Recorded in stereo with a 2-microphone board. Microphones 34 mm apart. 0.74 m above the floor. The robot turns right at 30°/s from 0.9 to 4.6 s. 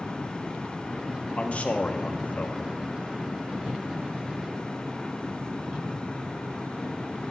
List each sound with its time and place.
1.4 s a man speaking: 50° left, 0.8 m; by 2.8 s 95° left, 0.8 m